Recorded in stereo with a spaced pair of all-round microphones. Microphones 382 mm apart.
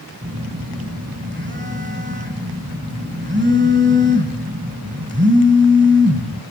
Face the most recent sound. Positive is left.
turn(degrees=-30)  # may be behind; listen again after turning